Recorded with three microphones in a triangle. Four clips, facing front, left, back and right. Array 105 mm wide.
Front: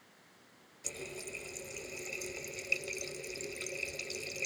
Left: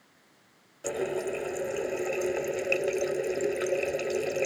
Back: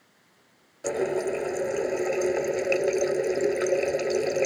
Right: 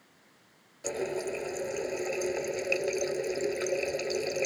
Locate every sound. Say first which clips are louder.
0.8 s a running tap: left 2 dB, back 20 dB; 175° left